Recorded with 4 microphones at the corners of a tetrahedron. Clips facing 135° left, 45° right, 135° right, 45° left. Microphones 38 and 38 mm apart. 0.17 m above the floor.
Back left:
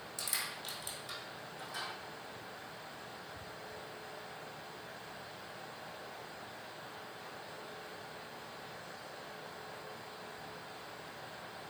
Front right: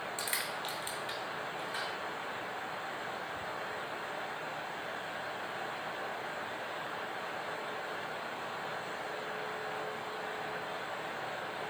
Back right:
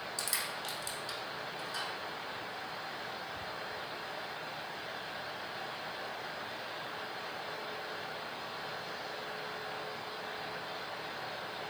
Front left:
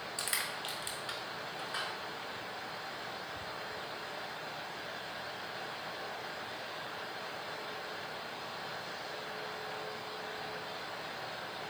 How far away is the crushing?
About 1.1 m.